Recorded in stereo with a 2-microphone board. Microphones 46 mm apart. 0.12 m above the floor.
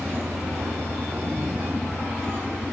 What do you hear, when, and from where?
0.0 s a vehicle: 65° right (ahead or behind)